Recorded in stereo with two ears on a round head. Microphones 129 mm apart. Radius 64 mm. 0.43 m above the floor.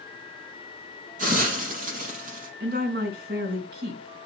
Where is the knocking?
No knocking in this recording.